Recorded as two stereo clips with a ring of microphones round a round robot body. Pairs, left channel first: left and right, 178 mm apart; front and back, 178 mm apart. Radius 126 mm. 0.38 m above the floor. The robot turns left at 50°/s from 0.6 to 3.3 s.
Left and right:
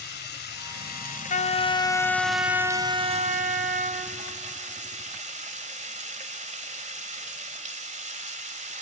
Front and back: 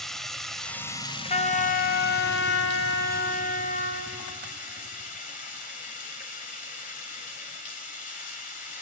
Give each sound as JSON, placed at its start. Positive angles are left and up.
{"t": 0.0, "sound": "running water", "azimuth_deg": 90, "distance_m": 1.6}
{"t": 1.3, "sound": "a trumpet", "azimuth_deg": 50, "distance_m": 1.5}